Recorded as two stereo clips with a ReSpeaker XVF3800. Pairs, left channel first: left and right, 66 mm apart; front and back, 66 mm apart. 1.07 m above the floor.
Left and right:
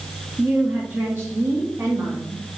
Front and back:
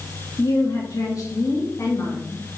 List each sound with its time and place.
0.4 s a woman speaking: 15° right, 1.5 m; by 2.6 s 50° right, 2 m